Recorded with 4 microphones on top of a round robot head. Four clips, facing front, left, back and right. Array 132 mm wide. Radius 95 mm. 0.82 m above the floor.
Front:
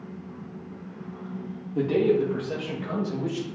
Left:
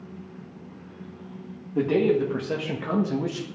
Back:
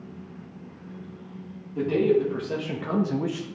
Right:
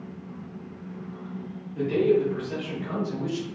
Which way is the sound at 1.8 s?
70° left.